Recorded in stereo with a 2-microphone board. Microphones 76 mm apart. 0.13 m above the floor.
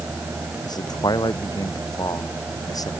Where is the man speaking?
60° left (ahead or behind); by 2.9 s 50° left (ahead or behind).